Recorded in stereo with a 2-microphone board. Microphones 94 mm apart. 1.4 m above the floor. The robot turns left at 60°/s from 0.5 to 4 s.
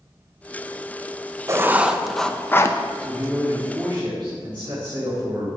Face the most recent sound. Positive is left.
turn(degrees=-60)